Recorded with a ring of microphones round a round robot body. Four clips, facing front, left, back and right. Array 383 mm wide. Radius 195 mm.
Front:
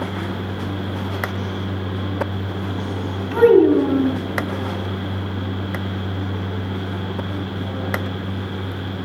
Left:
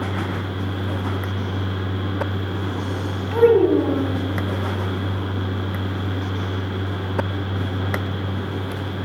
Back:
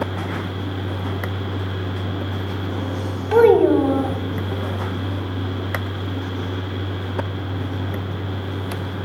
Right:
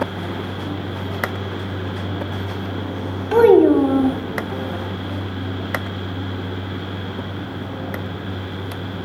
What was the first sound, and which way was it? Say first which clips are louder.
A child speaking: right 4 dB, front 1 dB; 135° right.